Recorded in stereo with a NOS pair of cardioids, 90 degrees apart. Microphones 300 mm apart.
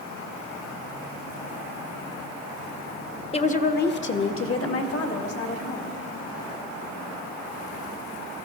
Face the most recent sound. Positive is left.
turn(degrees=55)